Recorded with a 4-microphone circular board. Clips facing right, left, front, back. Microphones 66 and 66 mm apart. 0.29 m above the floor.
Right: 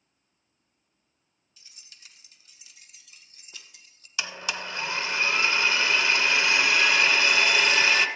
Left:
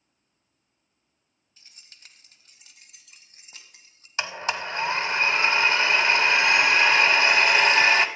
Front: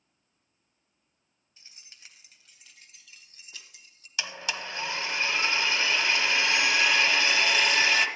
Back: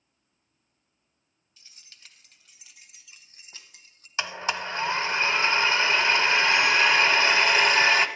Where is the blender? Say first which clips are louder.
Left 4 dB, back 5 dB; 135° left, 0.8 m.